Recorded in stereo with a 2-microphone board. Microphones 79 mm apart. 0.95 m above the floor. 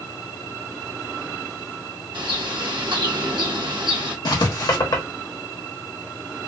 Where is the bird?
80° right, 1.0 m.